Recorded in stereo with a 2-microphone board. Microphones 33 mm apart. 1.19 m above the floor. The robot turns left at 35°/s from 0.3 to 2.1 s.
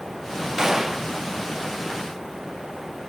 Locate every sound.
0.6 s a gunshot: 15° right (ahead or behind), 0.6 m; by 1.1 s 10° right (ahead or behind), 0.6 m